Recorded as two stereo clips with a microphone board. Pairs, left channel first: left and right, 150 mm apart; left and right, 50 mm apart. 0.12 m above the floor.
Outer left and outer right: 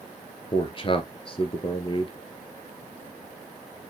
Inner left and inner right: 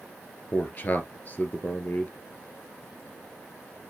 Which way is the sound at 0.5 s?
35° left (ahead or behind).